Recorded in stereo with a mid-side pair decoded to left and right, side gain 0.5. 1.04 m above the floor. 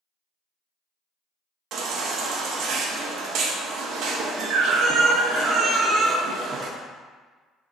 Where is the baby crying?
65° right, 0.6 m.